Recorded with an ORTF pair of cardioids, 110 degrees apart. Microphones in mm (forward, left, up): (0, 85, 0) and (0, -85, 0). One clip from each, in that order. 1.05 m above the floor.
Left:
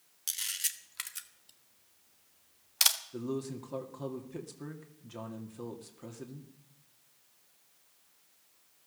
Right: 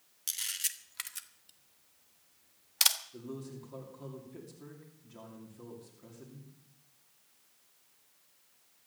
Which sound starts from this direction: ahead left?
A man speaking, at 3.1 s.